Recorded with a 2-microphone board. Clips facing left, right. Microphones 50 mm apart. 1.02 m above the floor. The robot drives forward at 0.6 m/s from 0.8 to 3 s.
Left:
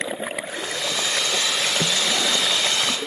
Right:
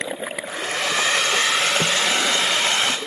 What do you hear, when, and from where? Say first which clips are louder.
0.5 s a hair dryer: right 3 dB; 55° right (ahead or behind), 3 m; by 3.0 s 40° right (ahead or behind), 4 m